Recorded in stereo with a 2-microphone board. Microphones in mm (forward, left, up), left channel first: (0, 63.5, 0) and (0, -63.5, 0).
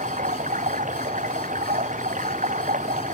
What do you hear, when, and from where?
0.0 s running water: 75° right (ahead or behind)